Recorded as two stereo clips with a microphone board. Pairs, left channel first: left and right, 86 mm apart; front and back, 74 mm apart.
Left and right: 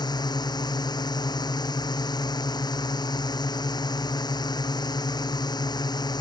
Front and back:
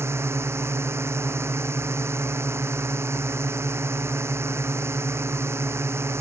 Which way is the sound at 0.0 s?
125° left.